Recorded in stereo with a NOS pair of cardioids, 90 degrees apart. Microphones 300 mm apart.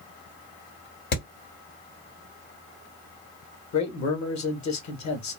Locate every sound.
1.1 s hammering: 60° left, 1.7 m
3.7 s a man speaking: 65° left, 1.4 m